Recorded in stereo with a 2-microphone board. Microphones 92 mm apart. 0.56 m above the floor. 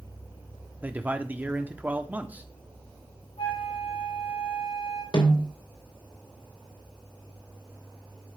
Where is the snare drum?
60° left (ahead or behind), 3 m.